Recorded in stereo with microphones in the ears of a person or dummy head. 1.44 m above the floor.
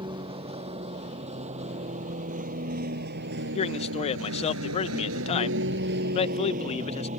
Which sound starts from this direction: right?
A vehicle, at 0.0 s.